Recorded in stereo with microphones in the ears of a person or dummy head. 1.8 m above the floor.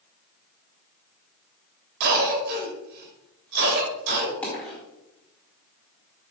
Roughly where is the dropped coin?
Centre.